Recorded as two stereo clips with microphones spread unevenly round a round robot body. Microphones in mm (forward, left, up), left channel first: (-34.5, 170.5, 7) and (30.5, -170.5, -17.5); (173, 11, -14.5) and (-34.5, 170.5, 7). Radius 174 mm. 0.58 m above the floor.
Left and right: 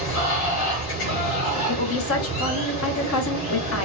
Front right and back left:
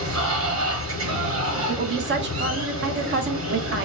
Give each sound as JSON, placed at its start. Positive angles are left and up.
{"t": 0.0, "sound": "running water", "azimuth_deg": 115, "distance_m": 1.4}
{"t": 1.7, "sound": "a woman speaking", "azimuth_deg": 130, "distance_m": 0.6}